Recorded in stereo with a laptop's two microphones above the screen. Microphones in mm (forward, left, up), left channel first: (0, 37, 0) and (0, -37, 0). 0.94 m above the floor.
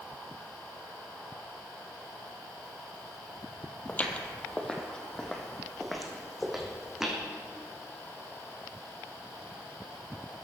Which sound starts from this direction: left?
Footsteps, at 3.9 s.